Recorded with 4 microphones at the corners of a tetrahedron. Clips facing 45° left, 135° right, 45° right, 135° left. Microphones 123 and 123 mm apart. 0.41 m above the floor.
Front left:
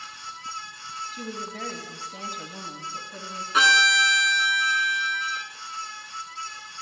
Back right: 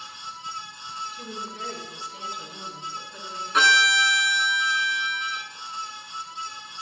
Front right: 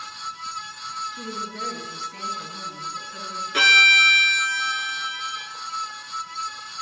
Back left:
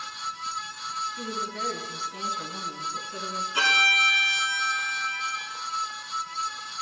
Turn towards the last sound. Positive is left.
turn(degrees=-45)